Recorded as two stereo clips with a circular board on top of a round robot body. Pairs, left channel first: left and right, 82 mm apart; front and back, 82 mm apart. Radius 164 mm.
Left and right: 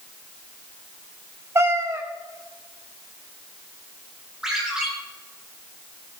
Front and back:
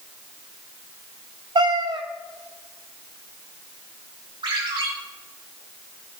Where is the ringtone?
175° right, 6.5 m.